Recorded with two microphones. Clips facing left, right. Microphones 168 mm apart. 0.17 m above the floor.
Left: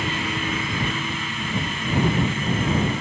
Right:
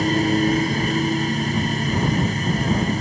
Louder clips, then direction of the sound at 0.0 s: Right 9 dB; 40° right (ahead or behind).